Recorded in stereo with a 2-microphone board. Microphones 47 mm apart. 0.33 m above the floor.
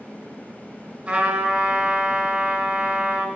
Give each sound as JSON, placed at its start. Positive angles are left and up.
{"t": 1.1, "sound": "a trumpet", "side_deg": -25, "distance_m": 3.5}